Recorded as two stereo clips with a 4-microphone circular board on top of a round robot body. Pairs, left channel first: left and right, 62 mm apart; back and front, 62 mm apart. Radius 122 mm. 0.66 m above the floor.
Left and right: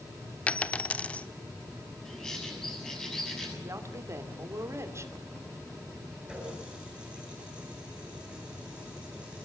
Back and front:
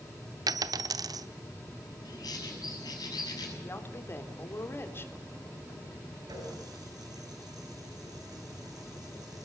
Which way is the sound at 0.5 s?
20° left.